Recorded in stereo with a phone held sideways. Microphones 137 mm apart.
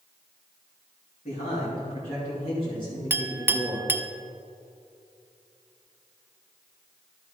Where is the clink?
15° right (ahead or behind), 0.5 m.